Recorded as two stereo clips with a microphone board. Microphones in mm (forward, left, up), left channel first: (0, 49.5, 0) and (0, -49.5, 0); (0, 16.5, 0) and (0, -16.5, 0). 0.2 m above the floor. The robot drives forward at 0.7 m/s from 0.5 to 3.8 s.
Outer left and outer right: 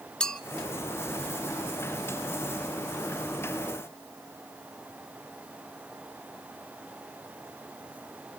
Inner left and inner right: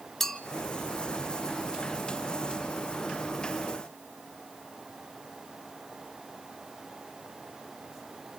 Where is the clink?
10° left (ahead or behind), 0.9 m.